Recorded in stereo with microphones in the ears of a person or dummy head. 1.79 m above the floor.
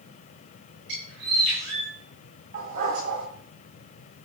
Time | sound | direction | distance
0.9 | a bird | 70° right (ahead or behind) | 6.5 m
2.5 | a dog barking | 55° right (ahead or behind) | 4 m